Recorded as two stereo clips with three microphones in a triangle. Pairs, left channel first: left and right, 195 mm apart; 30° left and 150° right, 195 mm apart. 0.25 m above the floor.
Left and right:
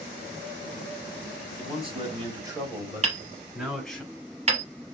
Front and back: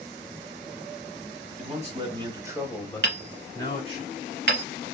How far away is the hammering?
About 1.0 m.